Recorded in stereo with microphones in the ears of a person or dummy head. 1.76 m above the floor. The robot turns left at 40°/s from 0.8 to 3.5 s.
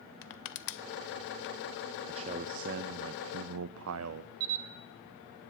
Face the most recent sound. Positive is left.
turn(degrees=-80)